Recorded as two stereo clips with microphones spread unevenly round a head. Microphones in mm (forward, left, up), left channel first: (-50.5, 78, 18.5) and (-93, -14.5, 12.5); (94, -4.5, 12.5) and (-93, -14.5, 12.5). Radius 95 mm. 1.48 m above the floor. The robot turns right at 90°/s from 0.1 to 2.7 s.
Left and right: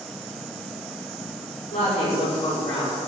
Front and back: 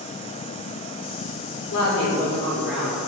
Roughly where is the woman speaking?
Ahead.